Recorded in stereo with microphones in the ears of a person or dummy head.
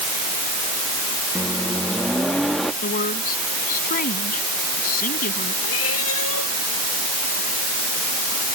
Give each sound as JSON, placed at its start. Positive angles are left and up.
{"t": 1.4, "sound": "a microwave", "side_deg": 0}
{"t": 2.8, "sound": "a woman speaking", "side_deg": 45}
{"t": 5.6, "sound": "a cat meowing", "side_deg": 80}